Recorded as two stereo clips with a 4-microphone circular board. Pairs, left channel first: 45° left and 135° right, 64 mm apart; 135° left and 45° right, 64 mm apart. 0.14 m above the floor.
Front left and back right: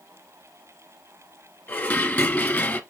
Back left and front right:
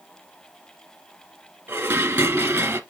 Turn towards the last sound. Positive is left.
turn(degrees=0)